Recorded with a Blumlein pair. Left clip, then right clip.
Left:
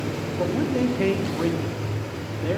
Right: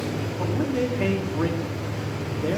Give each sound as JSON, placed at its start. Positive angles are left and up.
{"t": 0.4, "sound": "a man speaking", "azimuth_deg": 5, "distance_m": 2.0}